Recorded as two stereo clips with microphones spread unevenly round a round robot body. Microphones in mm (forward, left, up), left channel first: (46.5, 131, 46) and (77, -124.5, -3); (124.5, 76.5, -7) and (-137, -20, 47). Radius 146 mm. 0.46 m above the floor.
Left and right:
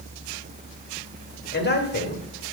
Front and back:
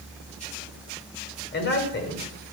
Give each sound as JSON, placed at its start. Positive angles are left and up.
{"t": 1.5, "sound": "a man speaking", "azimuth_deg": 45, "distance_m": 1.9}